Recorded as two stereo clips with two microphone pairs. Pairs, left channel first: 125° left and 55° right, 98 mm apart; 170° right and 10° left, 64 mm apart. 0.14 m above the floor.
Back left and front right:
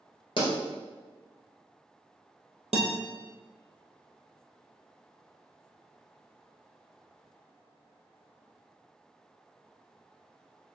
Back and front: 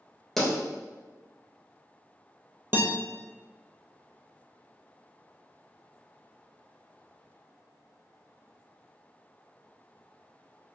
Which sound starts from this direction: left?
A pop, at 0.4 s.